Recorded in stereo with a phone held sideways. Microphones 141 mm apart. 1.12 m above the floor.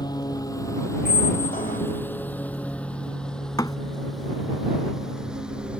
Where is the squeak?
70° left (ahead or behind).